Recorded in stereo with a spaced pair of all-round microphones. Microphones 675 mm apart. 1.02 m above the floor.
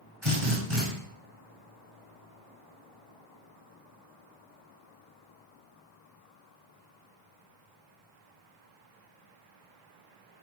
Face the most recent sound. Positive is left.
turn(degrees=-45)  # may be behind; listen again after turning